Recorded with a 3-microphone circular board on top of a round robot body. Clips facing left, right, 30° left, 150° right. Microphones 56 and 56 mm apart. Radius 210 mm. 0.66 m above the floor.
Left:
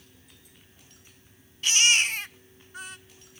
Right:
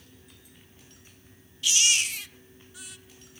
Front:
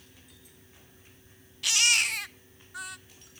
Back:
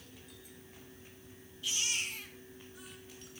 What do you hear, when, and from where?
1.6 s a baby crying: 40° left, 1.4 m